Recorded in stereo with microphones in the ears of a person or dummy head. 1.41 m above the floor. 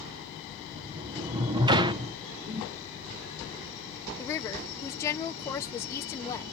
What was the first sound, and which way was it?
A sliding door, 20° right (ahead or behind).